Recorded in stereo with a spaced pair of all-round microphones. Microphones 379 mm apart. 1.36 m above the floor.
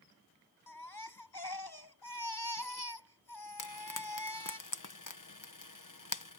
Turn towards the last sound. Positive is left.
turn(degrees=55)  # may be behind; listen again after turning